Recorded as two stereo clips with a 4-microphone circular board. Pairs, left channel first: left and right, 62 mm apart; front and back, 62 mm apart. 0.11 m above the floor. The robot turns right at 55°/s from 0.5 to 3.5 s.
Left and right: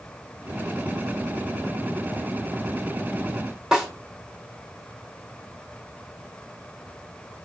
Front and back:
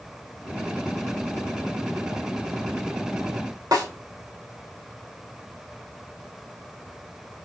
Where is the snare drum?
170° right, 2 m.